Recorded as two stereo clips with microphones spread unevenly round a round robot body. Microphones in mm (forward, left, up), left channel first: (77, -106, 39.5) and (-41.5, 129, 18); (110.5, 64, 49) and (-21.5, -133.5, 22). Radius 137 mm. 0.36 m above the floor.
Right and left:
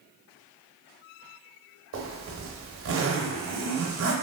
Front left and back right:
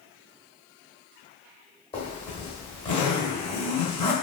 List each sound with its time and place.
1.9 s a zipper: 125° left, 0.8 m